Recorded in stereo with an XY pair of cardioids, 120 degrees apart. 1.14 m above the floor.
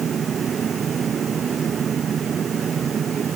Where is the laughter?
I don't hear laughter.